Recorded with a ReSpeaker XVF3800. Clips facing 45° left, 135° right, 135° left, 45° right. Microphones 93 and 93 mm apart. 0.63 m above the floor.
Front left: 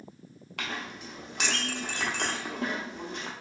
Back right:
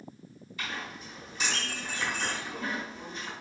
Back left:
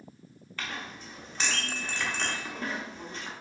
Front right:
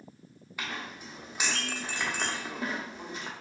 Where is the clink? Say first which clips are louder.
Front left 2 dB, even; 35° left, 0.6 m.